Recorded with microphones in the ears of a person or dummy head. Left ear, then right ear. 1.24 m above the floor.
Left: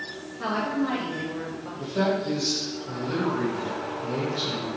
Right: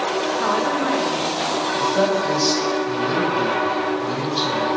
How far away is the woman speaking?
About 0.8 m.